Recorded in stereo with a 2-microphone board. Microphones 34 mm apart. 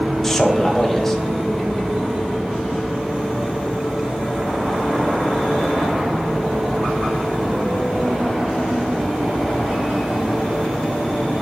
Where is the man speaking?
10° left (ahead or behind), 1.1 m.